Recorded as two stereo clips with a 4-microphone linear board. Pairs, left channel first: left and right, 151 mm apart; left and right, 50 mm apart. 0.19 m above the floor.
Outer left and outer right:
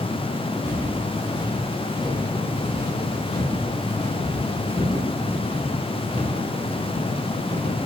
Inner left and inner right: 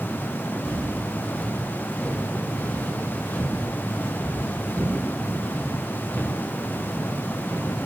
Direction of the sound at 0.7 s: 25° left (ahead or behind).